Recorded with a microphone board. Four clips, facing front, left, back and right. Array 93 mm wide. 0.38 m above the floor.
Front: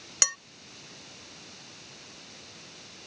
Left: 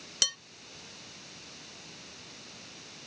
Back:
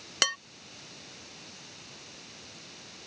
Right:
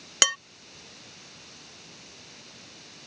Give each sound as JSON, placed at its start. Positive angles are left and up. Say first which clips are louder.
{"t": 0.2, "sound": "dishes clattering", "louder": "right 13 dB, back 4 dB", "azimuth_deg": -105}